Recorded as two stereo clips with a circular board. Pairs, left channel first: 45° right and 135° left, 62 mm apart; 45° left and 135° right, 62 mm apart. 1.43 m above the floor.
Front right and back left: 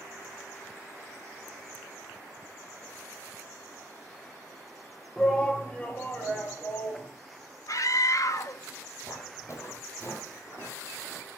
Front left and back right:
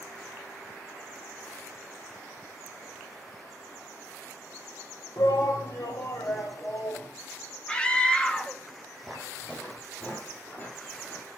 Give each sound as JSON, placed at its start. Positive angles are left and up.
{"t": 5.2, "sound": "a shout", "azimuth_deg": 40, "distance_m": 0.9}
{"t": 7.7, "sound": "a scream", "azimuth_deg": -30, "distance_m": 0.8}
{"t": 9.0, "sound": "footsteps", "azimuth_deg": -35, "distance_m": 2.5}